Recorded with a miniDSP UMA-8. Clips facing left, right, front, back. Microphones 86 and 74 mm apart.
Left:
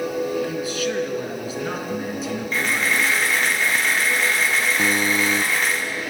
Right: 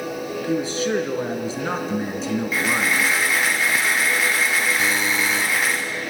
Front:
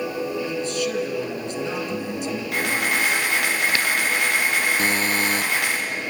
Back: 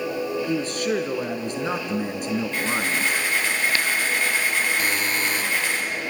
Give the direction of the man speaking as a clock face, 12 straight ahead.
5 o'clock.